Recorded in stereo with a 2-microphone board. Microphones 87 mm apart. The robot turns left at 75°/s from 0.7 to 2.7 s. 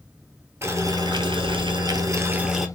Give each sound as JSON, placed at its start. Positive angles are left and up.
{"t": 0.6, "sound": "boiling", "azimuth_deg": -35, "distance_m": 0.8}